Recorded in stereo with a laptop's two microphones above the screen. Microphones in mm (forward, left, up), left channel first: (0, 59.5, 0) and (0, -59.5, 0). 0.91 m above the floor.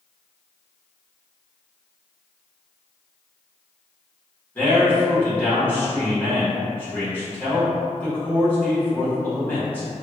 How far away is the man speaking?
About 1.3 m.